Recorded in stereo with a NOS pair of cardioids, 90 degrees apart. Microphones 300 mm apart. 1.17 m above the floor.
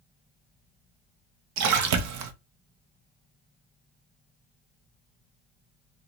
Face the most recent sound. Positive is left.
turn(degrees=-70)